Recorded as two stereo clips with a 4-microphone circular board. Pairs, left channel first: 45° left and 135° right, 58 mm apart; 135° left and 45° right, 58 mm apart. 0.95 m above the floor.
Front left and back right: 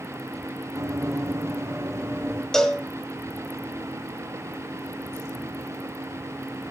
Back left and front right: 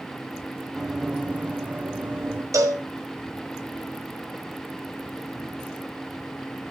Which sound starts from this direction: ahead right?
A cowbell, at 2.5 s.